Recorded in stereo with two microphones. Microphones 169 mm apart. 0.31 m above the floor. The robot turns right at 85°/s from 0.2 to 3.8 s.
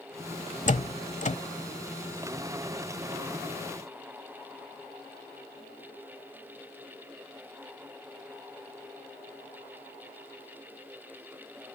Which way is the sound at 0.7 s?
45° left (ahead or behind).